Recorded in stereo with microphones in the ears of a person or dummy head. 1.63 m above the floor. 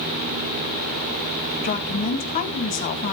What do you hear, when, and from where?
1.6 s a woman speaking: 40° left (ahead or behind), 1.6 m